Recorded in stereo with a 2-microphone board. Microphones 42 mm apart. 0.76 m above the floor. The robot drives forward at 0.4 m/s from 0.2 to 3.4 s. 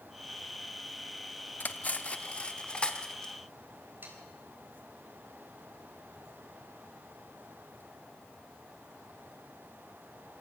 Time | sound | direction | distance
1.6 | cutlery clinking | 45° left (ahead or behind) | 0.7 m
4.0 | sawing | 50° right (ahead or behind) | 4 m